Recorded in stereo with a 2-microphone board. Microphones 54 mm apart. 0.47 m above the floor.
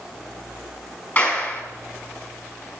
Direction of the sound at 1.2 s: 35° left (ahead or behind).